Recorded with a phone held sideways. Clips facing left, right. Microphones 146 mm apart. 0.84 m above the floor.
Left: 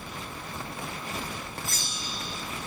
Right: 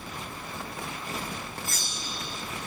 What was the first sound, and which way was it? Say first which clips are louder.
A bell: even; 50° right (ahead or behind).